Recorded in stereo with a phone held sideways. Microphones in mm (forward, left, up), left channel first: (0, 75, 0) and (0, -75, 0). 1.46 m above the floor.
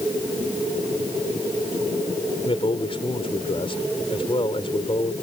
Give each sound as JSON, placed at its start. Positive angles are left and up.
{"t": 2.5, "sound": "a man speaking", "side_deg": 40}